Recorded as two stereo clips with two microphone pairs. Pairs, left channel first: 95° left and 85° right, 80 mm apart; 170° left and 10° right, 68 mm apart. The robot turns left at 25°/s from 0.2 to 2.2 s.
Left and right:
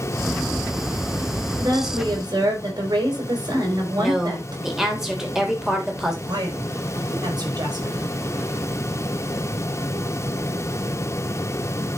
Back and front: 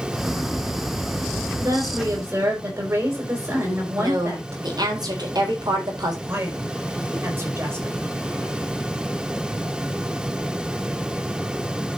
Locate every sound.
1.6 s a woman speaking: 40° right, 5.5 m; by 5.0 s 55° right, 5.5 m
4.0 s a woman speaking: straight ahead, 3.5 m
6.2 s a man speaking: 55° right, 5 m